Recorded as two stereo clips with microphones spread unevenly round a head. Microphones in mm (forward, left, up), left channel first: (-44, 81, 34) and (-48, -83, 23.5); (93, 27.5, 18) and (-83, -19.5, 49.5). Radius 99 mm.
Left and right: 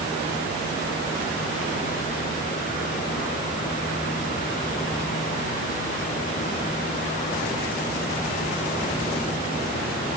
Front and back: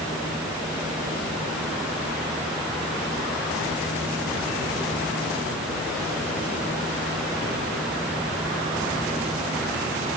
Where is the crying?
I don't hear crying.